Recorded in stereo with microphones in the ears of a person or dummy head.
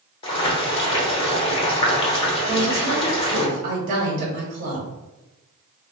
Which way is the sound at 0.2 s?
25° left (ahead or behind).